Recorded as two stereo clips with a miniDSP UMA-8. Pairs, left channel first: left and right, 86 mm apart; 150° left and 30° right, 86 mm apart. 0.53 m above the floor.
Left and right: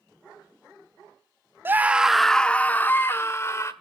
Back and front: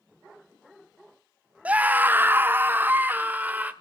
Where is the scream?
80° right, 0.7 m; by 3.7 s 40° left, 1.5 m.